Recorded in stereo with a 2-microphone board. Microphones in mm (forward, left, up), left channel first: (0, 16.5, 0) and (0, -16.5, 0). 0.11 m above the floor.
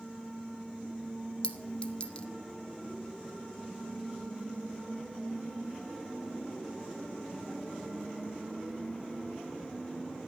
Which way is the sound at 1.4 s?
30° left (ahead or behind).